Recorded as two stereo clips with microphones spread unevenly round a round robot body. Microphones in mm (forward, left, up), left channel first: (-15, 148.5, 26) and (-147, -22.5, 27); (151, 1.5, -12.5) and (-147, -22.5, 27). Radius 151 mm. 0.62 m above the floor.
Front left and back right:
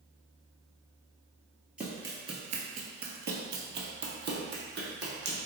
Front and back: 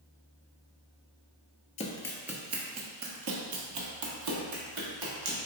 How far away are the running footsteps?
About 0.6 m.